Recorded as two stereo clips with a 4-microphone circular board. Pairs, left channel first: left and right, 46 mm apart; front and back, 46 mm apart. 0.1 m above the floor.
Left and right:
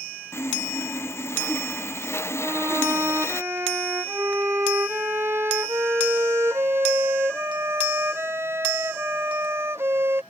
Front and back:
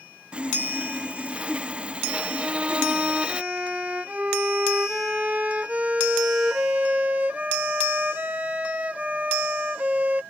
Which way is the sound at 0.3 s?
115° left.